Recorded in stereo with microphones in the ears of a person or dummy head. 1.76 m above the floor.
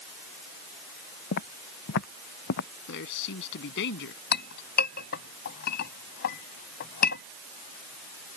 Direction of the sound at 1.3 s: 60° left (ahead or behind).